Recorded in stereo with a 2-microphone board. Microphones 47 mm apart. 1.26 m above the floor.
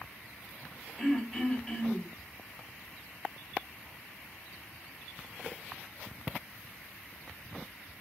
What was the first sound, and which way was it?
Throat clearing, centre (ahead or behind).